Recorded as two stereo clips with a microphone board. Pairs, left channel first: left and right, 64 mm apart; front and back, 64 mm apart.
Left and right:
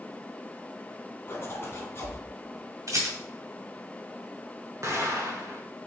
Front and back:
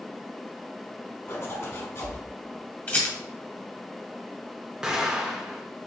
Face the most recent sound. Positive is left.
turn(degrees=-105)